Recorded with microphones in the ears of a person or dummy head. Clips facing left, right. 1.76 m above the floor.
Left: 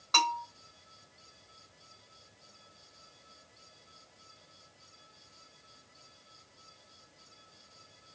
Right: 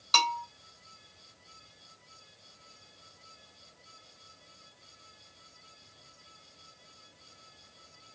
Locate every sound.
0.1 s a bell: 40° right (ahead or behind), 3.5 m